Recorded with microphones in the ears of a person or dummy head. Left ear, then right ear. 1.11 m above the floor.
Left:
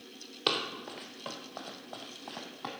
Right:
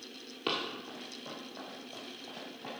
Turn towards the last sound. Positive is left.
turn(degrees=45)  # may be behind; listen again after turning